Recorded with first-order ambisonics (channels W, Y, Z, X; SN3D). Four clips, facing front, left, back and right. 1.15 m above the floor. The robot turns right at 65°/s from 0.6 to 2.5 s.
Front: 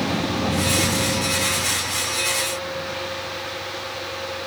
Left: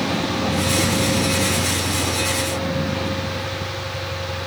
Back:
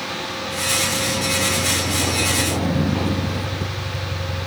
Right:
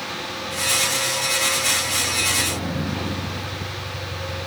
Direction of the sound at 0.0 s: 50° left.